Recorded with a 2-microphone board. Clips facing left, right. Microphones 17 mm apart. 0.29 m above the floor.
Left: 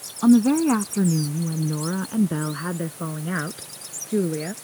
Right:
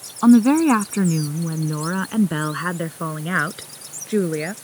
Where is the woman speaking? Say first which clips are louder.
Right 3 dB; 65° right (ahead or behind); by 4.5 s 55° right (ahead or behind).